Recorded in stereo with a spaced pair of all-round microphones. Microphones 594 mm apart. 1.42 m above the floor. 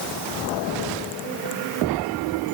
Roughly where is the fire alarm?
I don't hear a fire alarm.